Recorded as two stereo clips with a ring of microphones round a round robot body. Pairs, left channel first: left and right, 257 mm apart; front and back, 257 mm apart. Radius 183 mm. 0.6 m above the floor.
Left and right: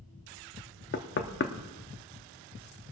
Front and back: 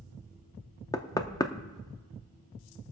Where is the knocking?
70° left, 0.8 m.